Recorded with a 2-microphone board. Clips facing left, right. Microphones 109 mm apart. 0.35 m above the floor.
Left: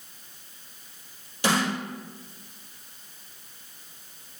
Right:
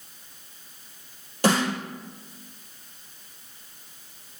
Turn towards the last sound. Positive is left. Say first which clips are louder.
# right 3 dB
turn(degrees=-45)  # may be behind; listen again after turning